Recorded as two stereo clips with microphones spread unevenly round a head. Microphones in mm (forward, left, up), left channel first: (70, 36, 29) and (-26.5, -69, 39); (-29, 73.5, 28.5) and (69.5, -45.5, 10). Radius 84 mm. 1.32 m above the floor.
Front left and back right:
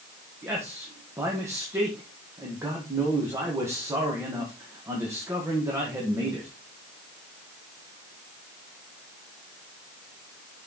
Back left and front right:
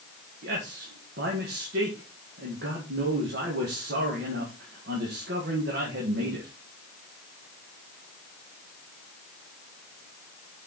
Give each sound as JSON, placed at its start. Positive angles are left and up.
{"t": 0.4, "sound": "a man speaking", "azimuth_deg": -60, "distance_m": 1.7}